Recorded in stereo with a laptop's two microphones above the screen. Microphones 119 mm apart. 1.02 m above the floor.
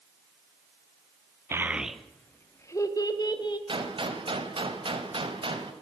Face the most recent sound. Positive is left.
turn(degrees=-45)  # may be behind; listen again after turning